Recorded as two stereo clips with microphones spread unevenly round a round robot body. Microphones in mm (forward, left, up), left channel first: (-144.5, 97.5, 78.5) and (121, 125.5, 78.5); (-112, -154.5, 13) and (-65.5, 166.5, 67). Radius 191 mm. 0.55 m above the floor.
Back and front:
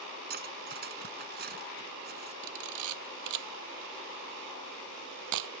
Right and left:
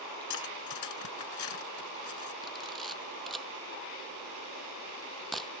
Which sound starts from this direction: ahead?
A camera shutter, at 2.4 s.